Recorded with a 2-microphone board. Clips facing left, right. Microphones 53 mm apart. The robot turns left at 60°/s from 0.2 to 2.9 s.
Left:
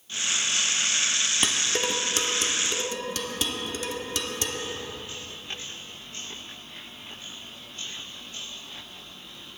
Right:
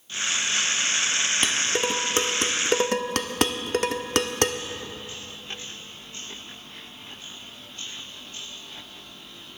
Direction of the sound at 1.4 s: 5° left (ahead or behind).